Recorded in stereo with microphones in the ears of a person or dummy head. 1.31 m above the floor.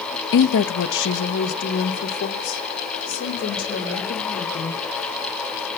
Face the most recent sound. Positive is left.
turn(degrees=60)  # may be behind; listen again after turning